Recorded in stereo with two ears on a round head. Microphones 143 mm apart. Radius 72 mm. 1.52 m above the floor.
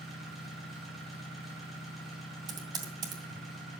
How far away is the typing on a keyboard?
About 2.5 m.